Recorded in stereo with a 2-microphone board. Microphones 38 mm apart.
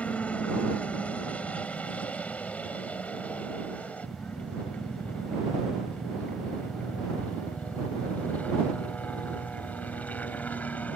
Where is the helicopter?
35° left (ahead or behind); by 11.0 s 45° left (ahead or behind).